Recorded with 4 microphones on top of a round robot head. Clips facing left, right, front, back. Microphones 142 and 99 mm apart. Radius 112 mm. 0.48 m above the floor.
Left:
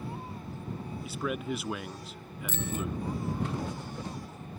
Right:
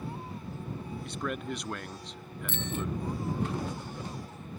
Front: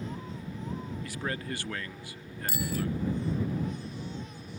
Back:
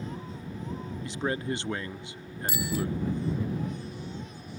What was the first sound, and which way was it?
A man speaking, 170° left.